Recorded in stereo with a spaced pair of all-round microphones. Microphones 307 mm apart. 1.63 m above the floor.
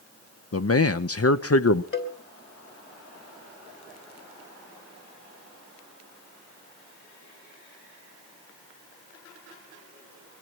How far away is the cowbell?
About 3 m.